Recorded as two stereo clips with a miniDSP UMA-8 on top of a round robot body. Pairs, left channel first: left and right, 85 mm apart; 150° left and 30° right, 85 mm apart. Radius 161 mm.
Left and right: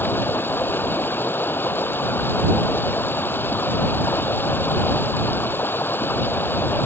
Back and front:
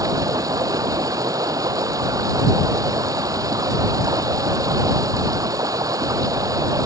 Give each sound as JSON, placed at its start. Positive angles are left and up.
{"t": 0.0, "sound": "running water", "azimuth_deg": 25}